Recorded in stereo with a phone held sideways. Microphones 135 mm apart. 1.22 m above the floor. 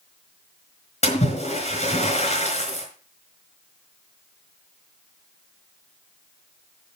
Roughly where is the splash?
Left.